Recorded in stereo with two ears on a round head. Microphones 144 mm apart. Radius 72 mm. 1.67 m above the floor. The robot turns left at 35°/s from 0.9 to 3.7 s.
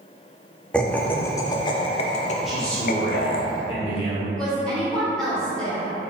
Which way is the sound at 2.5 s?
Straight behind.